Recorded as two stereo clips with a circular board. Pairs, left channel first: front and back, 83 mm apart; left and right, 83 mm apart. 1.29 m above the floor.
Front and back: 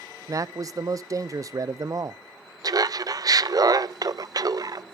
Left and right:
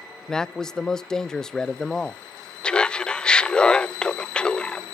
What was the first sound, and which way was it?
A man speaking, 170° left.